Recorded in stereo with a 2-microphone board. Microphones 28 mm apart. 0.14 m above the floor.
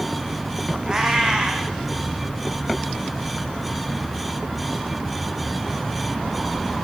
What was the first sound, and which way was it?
A cat meowing, 30° right (ahead or behind).